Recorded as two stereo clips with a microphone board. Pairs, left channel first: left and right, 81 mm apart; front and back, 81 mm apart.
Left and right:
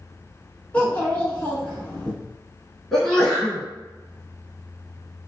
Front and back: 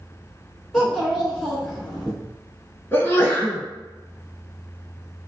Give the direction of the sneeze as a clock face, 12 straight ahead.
12 o'clock.